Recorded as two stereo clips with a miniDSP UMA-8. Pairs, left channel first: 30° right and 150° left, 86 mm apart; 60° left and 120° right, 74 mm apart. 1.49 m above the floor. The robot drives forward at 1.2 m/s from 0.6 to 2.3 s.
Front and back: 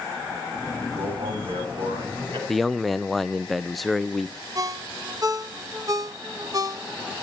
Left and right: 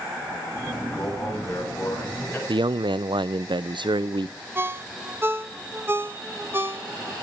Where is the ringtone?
175° right, 1.0 m.